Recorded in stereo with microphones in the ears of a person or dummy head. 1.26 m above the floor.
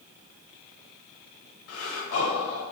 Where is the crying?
No crying in this recording.